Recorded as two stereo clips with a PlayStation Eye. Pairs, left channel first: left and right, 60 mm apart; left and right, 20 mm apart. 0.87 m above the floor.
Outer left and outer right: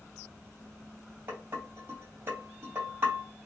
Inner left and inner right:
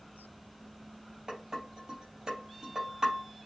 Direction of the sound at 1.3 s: 35° right (ahead or behind).